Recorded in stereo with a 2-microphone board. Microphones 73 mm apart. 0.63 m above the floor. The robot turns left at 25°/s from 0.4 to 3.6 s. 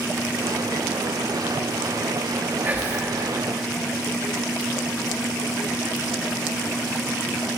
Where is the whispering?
25° right (ahead or behind), 1.0 m; by 3.1 s 20° right (ahead or behind), 1.0 m.